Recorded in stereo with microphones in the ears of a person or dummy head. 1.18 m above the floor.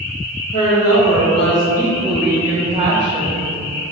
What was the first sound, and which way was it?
A woman speaking, 40° left (ahead or behind).